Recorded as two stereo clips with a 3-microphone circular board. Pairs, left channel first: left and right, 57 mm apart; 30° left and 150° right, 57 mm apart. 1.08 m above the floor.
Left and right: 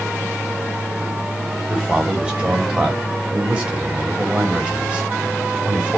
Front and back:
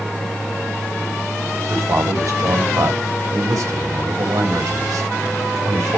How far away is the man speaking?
About 5 m.